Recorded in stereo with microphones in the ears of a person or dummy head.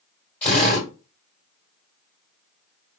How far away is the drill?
About 2 m.